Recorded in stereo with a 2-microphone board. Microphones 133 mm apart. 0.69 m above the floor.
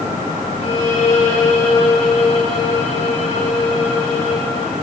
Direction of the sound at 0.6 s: 50° left (ahead or behind).